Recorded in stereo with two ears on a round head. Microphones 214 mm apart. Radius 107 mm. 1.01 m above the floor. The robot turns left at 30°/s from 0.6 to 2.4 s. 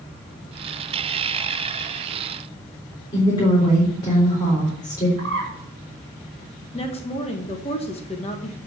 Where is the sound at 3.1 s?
20° left (ahead or behind), 3.5 m.